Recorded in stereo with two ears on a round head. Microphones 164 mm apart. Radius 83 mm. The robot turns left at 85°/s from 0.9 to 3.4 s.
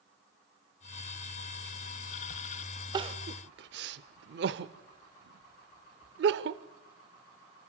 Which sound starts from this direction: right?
Crying, at 2.9 s.